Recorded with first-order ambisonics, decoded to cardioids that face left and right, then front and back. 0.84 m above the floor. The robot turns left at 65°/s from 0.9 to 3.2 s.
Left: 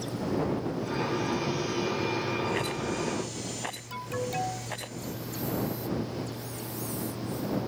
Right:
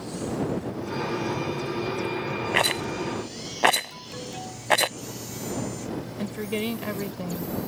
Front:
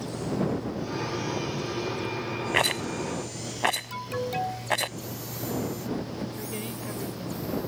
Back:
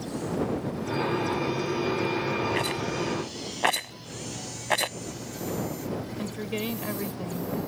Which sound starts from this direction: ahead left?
An alarm, at 3.9 s.